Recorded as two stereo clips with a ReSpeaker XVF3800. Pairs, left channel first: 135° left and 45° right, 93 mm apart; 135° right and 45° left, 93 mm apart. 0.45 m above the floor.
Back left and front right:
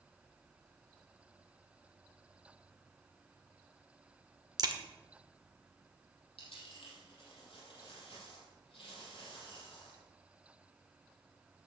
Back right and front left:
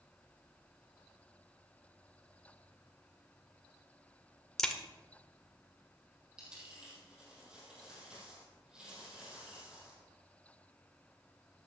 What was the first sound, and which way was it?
A crack, 55° right.